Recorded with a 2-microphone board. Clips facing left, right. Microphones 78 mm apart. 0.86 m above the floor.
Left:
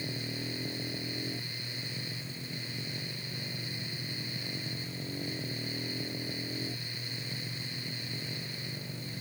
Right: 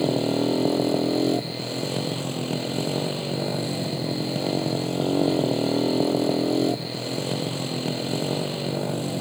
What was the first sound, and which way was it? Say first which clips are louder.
A motorcycle: right 17 dB; 85° right.